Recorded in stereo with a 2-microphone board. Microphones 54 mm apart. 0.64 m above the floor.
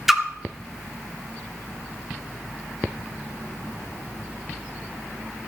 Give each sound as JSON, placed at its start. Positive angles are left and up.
{"t": 0.1, "sound": "a splash", "side_deg": -5, "distance_m": 1.5}